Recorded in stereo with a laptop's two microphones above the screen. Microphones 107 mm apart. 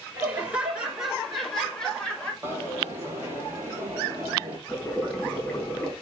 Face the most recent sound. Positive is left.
turn(degrees=15)  # may be behind; listen again after turning